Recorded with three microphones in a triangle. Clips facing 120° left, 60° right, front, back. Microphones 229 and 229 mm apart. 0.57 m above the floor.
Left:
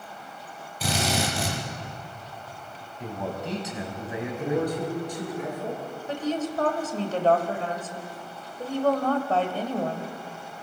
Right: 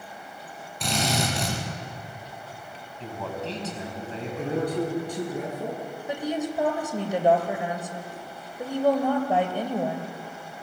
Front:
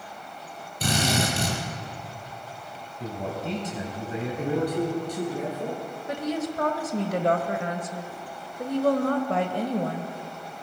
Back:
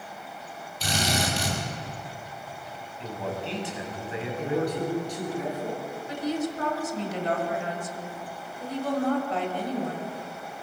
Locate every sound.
0.8 s a drill: 35° left, 6 m
3.0 s a man speaking: 45° left, 4.5 m
4.4 s a man speaking: 35° right, 9.5 m
6.1 s a woman speaking: 15° left, 2 m